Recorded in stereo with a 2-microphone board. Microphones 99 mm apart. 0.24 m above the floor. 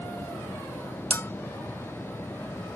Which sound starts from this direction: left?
A bell, at 1.1 s.